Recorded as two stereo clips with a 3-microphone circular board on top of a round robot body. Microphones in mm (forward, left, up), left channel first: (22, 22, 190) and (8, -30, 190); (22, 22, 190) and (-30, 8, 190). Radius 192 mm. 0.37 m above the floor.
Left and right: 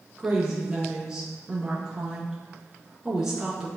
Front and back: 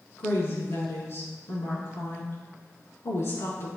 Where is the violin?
No violin in this recording.